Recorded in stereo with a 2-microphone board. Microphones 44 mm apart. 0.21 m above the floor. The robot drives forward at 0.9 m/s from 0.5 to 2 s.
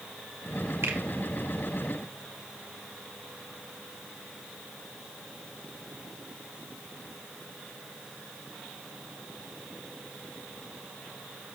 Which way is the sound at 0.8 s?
70° right (ahead or behind).